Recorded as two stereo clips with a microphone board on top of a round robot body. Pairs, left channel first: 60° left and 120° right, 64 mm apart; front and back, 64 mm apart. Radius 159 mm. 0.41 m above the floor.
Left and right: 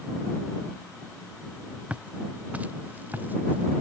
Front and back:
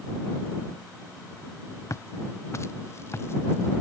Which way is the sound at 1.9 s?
45° right.